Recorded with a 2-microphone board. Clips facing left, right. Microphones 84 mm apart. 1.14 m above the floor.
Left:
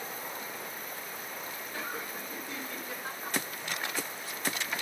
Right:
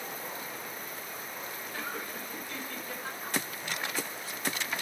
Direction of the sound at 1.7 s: 15° left (ahead or behind).